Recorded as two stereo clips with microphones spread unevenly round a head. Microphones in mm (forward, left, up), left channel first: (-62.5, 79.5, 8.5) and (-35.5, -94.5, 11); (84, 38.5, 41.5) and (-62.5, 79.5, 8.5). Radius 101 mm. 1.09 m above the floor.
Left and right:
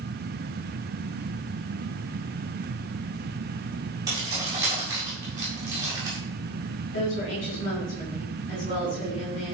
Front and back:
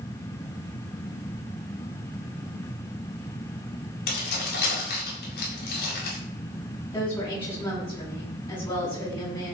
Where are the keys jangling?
5° right, 7 m.